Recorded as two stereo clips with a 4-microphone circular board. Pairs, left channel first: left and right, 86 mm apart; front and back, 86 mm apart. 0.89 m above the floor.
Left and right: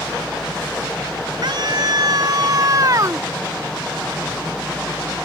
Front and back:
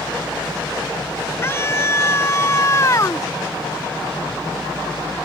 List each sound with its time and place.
1.4 s a scream: 60° right; by 3.3 s 45° right